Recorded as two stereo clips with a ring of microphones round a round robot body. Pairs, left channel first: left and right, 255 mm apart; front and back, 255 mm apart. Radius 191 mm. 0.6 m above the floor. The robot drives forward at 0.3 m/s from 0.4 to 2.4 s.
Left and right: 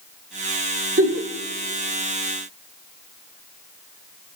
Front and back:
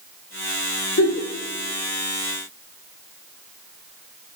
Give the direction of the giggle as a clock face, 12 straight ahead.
2 o'clock.